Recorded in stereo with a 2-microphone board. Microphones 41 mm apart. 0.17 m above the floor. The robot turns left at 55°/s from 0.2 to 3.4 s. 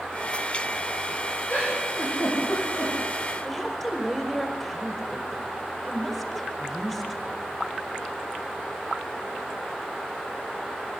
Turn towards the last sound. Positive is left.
turn(degrees=5)  # may be behind; listen again after turning